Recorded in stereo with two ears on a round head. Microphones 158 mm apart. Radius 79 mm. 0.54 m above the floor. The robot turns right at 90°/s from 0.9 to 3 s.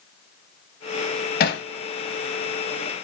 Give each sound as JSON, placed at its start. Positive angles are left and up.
{"t": 1.4, "sound": "hammering", "side_deg": 50, "distance_m": 0.8}